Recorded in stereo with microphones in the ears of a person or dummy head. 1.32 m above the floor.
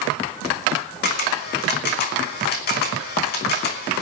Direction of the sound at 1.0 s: 50° left (ahead or behind).